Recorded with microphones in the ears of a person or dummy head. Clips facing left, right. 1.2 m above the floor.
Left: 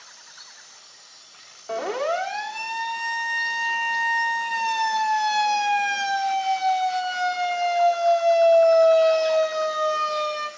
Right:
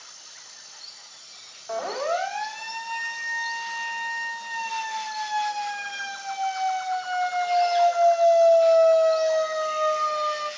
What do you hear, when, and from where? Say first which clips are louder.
1.7 s a siren: left 2 dB; 45° left (ahead or behind), 3.5 m; by 10.5 s 35° left (ahead or behind), 4 m